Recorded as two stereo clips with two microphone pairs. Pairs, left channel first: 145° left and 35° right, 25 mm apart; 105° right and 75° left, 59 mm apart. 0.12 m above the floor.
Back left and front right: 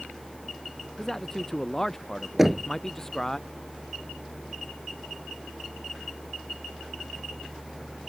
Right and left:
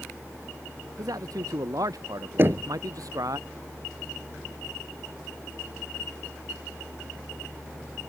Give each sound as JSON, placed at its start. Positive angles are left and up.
{"t": 1.0, "sound": "a man speaking", "azimuth_deg": 70}
{"t": 2.4, "sound": "knocking", "azimuth_deg": 40}